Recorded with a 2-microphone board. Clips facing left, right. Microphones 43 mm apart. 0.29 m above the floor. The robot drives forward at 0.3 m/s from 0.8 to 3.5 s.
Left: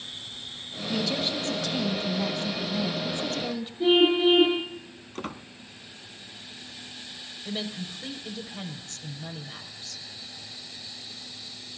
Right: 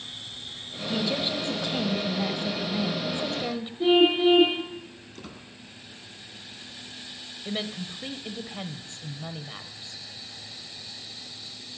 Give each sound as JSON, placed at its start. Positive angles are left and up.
{"t": 0.9, "sound": "a woman speaking", "side_deg": -20, "distance_m": 1.8}
{"t": 3.8, "sound": "a car horn", "side_deg": -5, "distance_m": 5.0}
{"t": 5.2, "sound": "a squeak", "side_deg": 55, "distance_m": 0.7}
{"t": 7.5, "sound": "a woman speaking", "side_deg": -25, "distance_m": 1.0}